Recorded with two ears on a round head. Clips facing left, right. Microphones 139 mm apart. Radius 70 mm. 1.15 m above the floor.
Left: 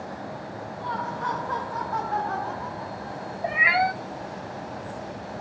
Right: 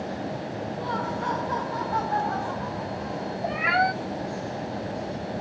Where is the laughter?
45° right (ahead or behind), 1.3 m; by 3.3 s 15° left (ahead or behind), 2.5 m.